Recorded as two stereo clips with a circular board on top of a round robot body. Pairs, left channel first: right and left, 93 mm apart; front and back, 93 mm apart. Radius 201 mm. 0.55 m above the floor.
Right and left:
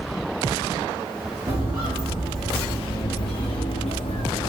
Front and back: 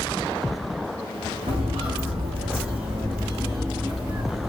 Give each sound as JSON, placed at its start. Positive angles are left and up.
{"t": 1.5, "sound": "footsteps", "azimuth_deg": 145, "distance_m": 1.0}